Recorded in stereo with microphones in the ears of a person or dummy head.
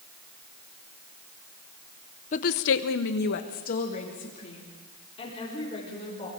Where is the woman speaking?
45° left (ahead or behind), 1.0 m; by 6.3 s 30° left (ahead or behind), 5.5 m.